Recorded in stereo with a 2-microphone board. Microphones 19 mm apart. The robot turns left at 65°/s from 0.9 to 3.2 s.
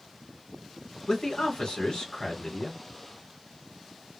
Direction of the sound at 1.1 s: 130° left.